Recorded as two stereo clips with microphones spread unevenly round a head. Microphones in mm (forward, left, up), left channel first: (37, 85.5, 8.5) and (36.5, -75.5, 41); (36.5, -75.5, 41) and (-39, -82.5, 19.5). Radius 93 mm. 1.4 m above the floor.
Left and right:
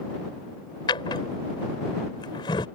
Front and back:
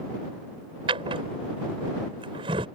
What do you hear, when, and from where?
0.9 s a drawer: 160° left